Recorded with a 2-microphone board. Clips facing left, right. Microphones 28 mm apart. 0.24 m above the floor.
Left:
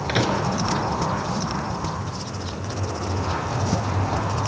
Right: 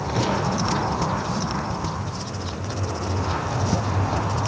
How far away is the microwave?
About 3.5 m.